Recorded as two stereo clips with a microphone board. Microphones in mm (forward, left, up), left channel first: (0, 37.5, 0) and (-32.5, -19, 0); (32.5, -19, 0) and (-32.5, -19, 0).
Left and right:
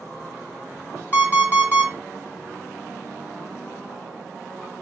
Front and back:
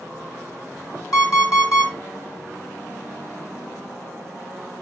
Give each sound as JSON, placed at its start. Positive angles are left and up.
{"t": 1.1, "sound": "an alarm clock", "azimuth_deg": 5, "distance_m": 1.2}